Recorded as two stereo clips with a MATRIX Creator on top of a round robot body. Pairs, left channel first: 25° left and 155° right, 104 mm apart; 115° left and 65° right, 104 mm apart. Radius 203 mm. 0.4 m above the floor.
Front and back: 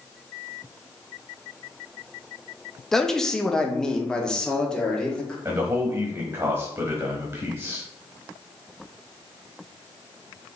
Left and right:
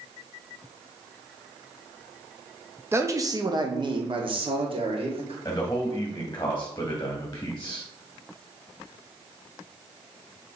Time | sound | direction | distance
2.9 | a man speaking | 55° right | 0.9 m
5.5 | a man speaking | 155° left | 1.4 m